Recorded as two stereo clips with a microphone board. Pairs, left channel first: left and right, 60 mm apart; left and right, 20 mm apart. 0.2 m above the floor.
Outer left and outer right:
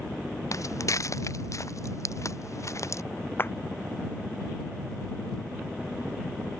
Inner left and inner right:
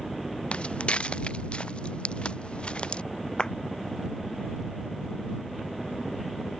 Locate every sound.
0.5 s footsteps: 65° left (ahead or behind); by 3.0 s 60° left (ahead or behind)
3.4 s a clap: 40° left (ahead or behind)